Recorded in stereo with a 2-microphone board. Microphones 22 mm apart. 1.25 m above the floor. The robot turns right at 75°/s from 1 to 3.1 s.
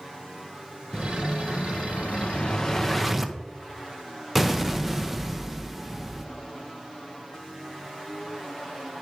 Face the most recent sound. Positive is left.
turn(degrees=-170)